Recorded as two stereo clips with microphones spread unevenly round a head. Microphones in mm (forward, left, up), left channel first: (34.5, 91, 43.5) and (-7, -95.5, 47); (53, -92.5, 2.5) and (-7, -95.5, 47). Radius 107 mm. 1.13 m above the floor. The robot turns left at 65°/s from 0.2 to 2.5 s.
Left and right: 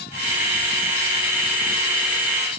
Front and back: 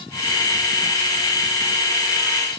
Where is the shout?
I don't hear a shout.